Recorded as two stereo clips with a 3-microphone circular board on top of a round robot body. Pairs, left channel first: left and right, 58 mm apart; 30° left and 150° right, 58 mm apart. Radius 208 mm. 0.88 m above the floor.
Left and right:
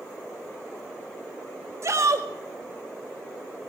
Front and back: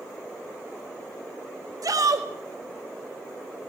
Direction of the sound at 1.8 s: 130° right.